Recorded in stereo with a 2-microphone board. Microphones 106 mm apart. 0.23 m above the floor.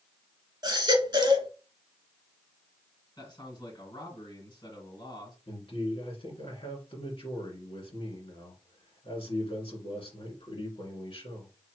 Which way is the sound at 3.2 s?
50° left (ahead or behind).